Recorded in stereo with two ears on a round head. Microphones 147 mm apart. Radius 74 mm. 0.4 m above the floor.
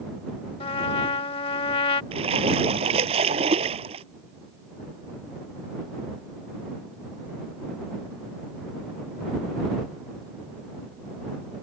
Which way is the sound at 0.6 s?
30° left (ahead or behind).